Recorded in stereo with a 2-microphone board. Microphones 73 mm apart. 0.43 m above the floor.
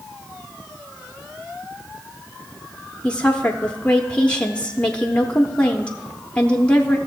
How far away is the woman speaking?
About 0.7 m.